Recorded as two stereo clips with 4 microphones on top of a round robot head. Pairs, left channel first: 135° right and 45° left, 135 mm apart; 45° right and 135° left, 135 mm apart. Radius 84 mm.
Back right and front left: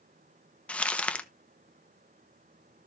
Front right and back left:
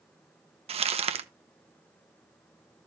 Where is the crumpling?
145° left, 1.1 m.